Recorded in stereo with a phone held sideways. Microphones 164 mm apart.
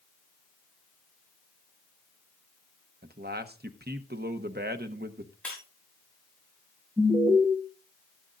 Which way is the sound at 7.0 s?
25° right (ahead or behind).